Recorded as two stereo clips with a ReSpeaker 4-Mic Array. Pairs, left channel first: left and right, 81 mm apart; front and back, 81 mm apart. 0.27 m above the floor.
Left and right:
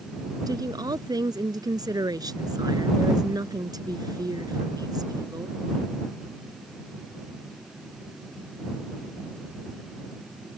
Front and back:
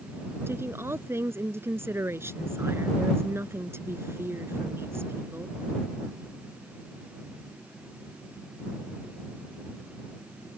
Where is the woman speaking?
125° right.